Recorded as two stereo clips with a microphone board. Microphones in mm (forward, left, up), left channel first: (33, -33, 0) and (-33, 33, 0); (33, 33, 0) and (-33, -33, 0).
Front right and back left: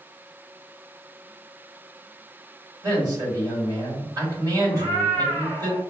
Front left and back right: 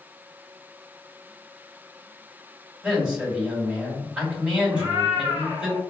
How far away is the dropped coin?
I don't hear a dropped coin.